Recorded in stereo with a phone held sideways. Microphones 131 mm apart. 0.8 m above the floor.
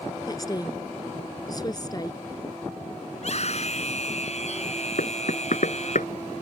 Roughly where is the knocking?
Left.